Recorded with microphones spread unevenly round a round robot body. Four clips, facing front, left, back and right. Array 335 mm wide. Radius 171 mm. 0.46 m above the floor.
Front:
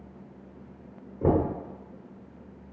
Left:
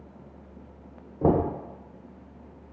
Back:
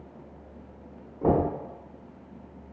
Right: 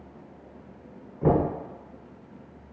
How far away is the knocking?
About 0.8 m.